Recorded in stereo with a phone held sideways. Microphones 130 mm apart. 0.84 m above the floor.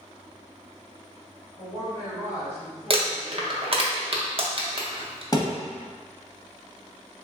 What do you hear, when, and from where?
1.6 s a woman speaking: 55° right (ahead or behind), 1.6 m; by 3.8 s 35° right (ahead or behind), 2 m
2.9 s crumpling: 45° right (ahead or behind), 0.6 m
5.3 s a thud: 30° left (ahead or behind), 0.7 m